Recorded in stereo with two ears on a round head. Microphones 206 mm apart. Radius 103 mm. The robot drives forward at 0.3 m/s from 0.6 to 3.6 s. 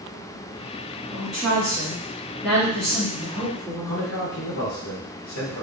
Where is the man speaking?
60° left (ahead or behind), 1.1 m.